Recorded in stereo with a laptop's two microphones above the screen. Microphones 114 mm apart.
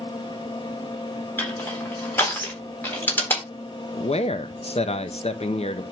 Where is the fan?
40° left (ahead or behind), 2.5 m.